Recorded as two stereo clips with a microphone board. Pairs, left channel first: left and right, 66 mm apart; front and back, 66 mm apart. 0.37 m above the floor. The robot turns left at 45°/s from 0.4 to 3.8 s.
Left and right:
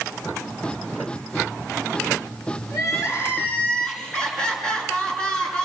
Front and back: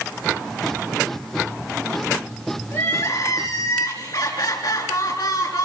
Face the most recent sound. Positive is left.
turn(degrees=15)